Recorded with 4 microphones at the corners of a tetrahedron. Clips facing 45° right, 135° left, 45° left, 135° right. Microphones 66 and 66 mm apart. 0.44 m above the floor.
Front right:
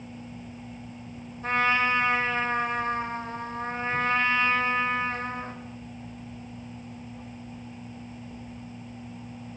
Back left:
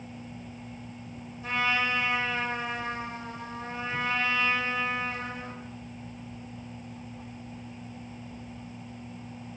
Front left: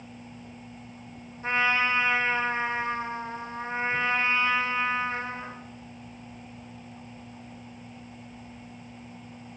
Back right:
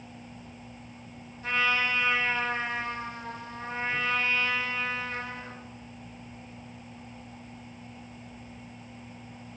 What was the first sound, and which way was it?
A trumpet, 10° right.